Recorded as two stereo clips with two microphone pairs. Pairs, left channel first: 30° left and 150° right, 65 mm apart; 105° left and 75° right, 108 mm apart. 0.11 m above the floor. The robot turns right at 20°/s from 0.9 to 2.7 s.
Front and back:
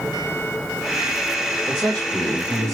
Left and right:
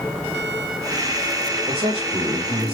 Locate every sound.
1.7 s a man speaking: 60° right, 2.5 m; by 2.8 s 40° right, 2.5 m